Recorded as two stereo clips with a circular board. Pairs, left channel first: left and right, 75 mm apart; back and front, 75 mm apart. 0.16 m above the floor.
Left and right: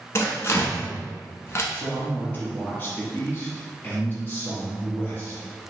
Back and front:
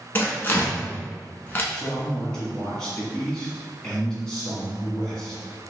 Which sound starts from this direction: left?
A man speaking, at 1.7 s.